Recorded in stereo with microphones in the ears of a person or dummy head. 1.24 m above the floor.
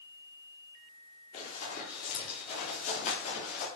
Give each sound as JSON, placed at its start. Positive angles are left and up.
{"t": 1.3, "sound": "running footsteps", "side_deg": 40, "distance_m": 8.0}